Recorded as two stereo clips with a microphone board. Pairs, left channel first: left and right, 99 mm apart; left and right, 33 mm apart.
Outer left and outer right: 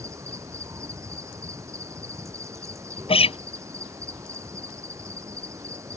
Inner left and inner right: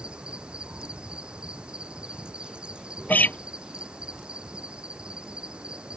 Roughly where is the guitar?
Left.